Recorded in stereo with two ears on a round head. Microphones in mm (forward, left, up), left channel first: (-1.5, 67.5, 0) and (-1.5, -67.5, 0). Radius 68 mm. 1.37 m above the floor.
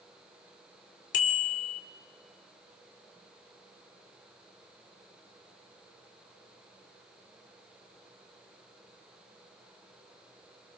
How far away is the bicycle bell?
About 2.5 m.